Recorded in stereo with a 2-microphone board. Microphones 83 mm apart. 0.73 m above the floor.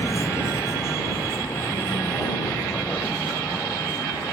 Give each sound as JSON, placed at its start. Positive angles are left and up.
{"t": 0.0, "sound": "a vehicle", "side_deg": 35}